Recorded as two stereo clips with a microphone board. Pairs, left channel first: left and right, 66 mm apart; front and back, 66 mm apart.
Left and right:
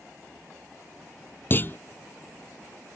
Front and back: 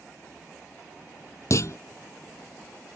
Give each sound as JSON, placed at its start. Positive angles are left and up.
{"t": 1.5, "sound": "a clunk", "azimuth_deg": 35}